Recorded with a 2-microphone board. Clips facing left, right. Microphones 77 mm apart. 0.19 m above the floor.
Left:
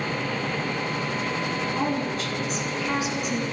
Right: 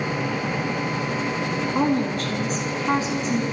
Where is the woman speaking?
45° right (ahead or behind), 2.5 m; by 3.4 s 30° right (ahead or behind), 2 m.